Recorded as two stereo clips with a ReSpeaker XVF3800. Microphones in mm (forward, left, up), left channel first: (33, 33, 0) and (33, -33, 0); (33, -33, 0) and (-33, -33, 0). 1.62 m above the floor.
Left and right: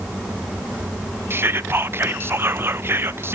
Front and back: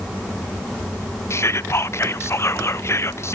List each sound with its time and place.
1.3 s whispering: 40° right, 0.6 m